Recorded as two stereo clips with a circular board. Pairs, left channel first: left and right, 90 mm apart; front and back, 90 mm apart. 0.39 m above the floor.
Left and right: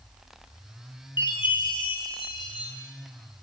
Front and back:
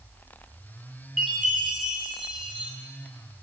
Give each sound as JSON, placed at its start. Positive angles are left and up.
{"t": 1.2, "sound": "a chime", "azimuth_deg": 95, "distance_m": 3.0}